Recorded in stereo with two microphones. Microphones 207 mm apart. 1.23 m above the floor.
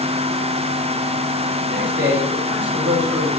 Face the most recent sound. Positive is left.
turn(degrees=-65)  # may be behind; listen again after turning